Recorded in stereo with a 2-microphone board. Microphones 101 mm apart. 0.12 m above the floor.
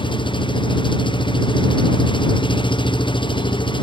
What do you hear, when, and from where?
0.0 s an engine running: 55° left (ahead or behind)